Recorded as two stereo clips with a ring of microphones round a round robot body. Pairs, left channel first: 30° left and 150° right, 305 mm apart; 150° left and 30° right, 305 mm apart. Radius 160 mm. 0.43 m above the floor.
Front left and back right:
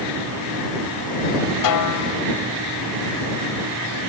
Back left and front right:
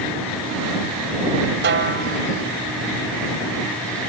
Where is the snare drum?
25° left.